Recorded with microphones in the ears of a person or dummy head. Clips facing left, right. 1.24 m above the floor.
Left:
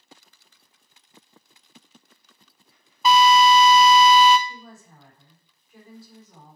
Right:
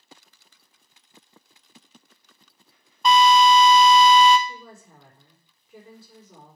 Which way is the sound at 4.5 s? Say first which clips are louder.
Right 1 dB; 70° right (ahead or behind).